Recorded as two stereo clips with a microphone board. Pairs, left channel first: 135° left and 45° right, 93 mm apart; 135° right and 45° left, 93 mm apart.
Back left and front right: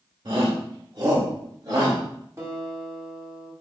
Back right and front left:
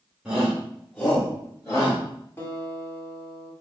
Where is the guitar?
85° right, 1.4 m.